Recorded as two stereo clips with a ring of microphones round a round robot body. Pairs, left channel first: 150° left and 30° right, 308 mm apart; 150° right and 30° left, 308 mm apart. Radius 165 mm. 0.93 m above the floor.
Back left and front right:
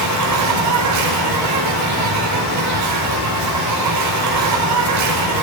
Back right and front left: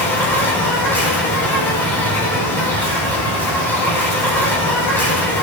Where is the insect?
65° right, 6 m.